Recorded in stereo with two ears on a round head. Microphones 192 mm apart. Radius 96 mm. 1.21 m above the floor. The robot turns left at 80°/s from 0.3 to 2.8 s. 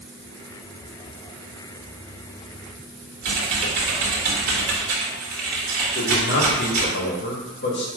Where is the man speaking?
55° left (ahead or behind), 1.9 m.